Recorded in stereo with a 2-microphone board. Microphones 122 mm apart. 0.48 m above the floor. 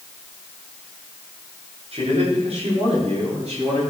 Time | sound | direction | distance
1.9 | a man speaking | 60° right (ahead or behind) | 6.5 m